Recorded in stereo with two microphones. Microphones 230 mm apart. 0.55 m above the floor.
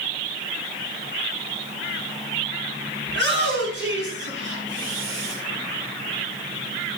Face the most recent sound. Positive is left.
turn(degrees=-60)  # may be behind; listen again after turning